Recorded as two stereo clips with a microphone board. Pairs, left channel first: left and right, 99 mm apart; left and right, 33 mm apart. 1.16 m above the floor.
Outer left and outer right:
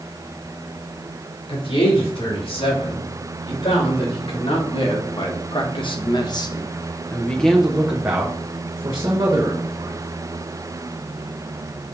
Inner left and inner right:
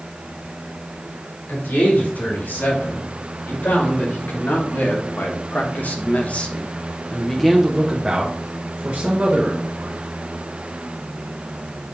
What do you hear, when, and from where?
1.5 s a man speaking: 80° left, 4.5 m; by 10.1 s 45° right (ahead or behind), 2.5 m